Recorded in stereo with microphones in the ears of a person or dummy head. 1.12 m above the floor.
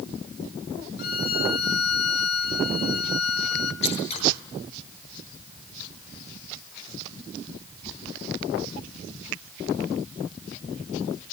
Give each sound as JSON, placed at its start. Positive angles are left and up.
{"t": 1.0, "sound": "a violin", "side_deg": 55, "distance_m": 1.5}
{"t": 3.8, "sound": "scissors", "side_deg": 40, "distance_m": 8.5}